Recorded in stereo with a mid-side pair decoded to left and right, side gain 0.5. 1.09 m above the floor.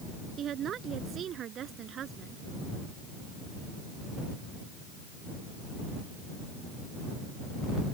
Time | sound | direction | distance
0.4 | a woman speaking | 55° right | ?